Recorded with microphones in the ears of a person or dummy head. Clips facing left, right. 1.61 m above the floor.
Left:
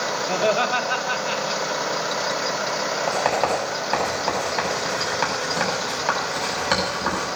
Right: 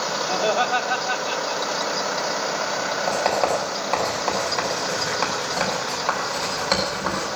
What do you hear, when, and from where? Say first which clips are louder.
0.3 s laughter: left 1 dB; 30° left (ahead or behind), 2 m
3.1 s writing: right 1 dB; 10° left (ahead or behind), 6.5 m